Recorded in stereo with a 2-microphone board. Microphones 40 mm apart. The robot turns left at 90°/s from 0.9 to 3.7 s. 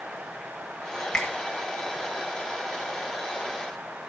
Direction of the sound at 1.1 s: 15° left (ahead or behind).